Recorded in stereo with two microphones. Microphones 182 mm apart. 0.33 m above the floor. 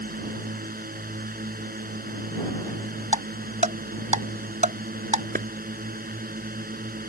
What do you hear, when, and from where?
0.0 s a drone: 55° right (ahead or behind)
3.1 s ticking: 45° right (ahead or behind)
5.3 s a clap: 55° right (ahead or behind)